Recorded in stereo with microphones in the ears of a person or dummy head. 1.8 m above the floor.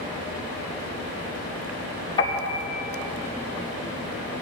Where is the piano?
30° left (ahead or behind), 2 m.